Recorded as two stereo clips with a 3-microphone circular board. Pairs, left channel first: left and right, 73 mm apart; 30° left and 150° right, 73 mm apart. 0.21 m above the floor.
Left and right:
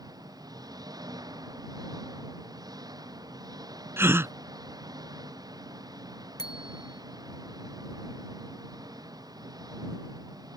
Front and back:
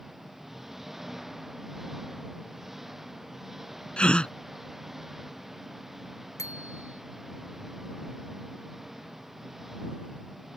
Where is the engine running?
65° right.